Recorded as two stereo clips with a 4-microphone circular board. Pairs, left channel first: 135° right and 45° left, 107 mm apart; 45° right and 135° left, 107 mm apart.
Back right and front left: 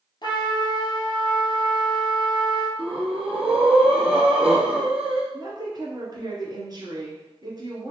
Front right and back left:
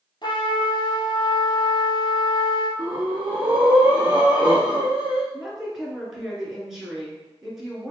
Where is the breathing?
60° left, 2.5 m.